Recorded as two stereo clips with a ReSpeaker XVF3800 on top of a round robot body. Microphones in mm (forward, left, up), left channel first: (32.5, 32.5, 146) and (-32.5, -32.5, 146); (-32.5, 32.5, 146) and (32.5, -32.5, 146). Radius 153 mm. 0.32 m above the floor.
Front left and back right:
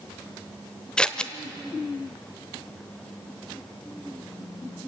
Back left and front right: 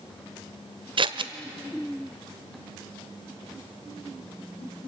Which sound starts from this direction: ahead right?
Scissors, at 1.0 s.